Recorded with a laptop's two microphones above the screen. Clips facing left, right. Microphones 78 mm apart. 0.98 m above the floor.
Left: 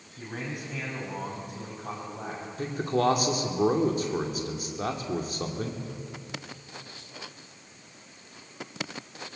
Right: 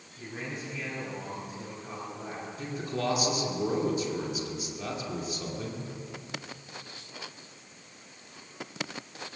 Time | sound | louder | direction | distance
0.2 | a man speaking | left 2 dB | 55° left (ahead or behind) | 6.5 m
2.6 | a man speaking | left 7 dB | 45° left (ahead or behind) | 2 m